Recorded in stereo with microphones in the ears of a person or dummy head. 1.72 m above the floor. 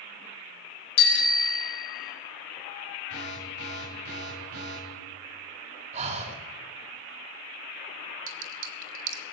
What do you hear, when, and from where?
1.0 s a bicycle bell: 75° left (ahead or behind), 2.5 m
3.1 s an alarm: 55° right (ahead or behind), 9 m
5.9 s breathing: 35° right (ahead or behind), 1.3 m
8.3 s a clink: 45° right (ahead or behind), 1.3 m